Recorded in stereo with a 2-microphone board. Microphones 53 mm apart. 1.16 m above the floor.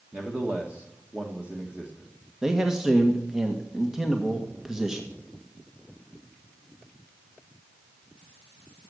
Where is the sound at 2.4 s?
10° right (ahead or behind), 1.6 m.